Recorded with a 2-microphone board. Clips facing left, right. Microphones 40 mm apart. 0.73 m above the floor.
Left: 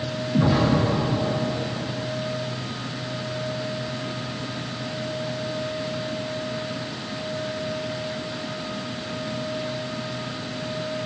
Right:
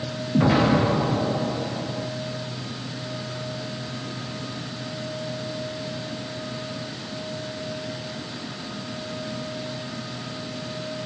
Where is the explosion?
50° right (ahead or behind), 0.7 m.